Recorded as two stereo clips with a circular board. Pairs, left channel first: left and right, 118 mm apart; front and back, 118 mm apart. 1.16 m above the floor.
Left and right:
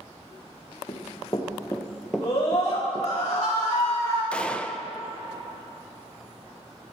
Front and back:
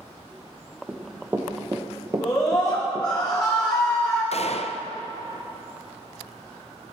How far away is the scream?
About 3.5 m.